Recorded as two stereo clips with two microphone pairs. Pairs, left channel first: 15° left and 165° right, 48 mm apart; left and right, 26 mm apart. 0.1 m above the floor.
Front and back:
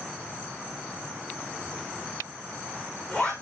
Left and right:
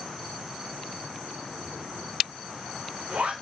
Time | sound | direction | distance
1.6 | a zipper | 60° right | 5 m